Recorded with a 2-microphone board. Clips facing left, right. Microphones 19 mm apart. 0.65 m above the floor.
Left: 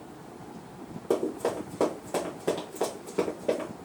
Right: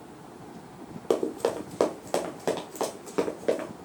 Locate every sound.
1.1 s running footsteps: 55° right (ahead or behind), 1.1 m; by 3.7 s 75° right (ahead or behind), 3 m